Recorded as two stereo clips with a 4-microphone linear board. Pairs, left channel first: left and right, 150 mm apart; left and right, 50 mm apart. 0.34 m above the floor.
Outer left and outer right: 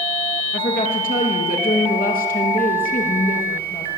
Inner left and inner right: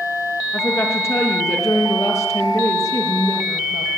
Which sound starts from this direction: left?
A woman speaking, at 0.5 s.